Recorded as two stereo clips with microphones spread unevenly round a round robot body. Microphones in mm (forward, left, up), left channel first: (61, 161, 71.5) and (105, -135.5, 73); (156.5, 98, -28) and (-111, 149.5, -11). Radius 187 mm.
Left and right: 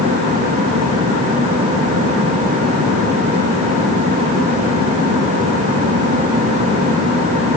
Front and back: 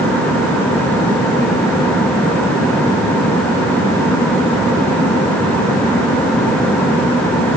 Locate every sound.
Only background noise.